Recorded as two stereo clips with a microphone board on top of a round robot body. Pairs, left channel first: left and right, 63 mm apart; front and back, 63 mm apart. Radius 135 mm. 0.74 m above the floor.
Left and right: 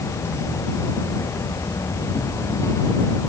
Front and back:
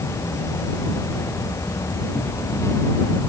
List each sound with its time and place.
0.0 s an insect: 45° left